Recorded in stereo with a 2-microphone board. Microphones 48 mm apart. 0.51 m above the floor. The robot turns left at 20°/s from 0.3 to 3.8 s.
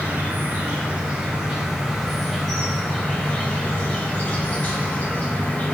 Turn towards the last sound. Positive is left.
turn(degrees=150)